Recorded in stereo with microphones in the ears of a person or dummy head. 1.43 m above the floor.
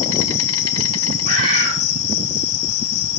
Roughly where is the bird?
Right.